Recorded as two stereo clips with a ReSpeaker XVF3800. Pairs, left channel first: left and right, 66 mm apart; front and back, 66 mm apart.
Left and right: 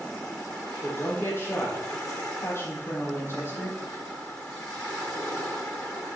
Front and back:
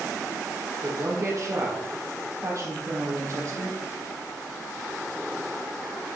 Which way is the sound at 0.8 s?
140° left.